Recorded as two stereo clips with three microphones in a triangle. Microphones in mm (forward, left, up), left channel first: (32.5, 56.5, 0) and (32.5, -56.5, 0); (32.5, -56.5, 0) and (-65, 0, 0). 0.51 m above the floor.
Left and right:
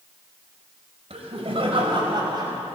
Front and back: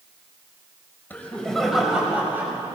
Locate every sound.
1.1 s laughter: 105° right, 2 m; by 2.8 s 145° right, 2.5 m